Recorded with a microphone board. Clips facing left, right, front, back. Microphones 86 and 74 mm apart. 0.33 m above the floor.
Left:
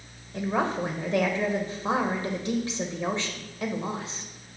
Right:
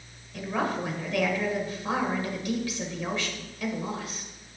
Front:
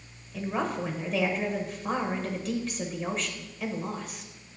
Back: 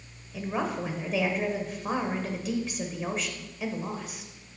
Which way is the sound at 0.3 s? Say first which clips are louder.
Left 2 dB, even; 100° left.